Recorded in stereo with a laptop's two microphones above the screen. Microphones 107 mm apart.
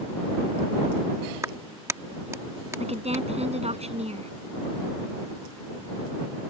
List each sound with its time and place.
1.4 s a clap: 25° right (ahead or behind)
2.8 s a woman speaking: 75° right (ahead or behind)